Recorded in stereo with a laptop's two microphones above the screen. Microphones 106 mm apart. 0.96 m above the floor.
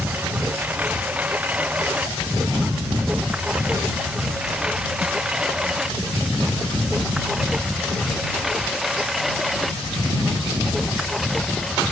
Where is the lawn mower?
15° right (ahead or behind); by 11.9 s centre (ahead or behind).